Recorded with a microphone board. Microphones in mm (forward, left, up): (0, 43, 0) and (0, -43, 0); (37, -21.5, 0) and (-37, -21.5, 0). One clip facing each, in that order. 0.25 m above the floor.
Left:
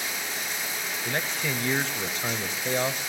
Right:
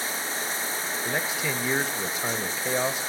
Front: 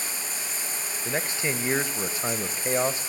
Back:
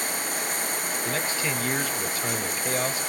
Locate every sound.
0.0 s running water: 145° right, 1.0 m
1.1 s a man speaking: 20° right, 1.0 m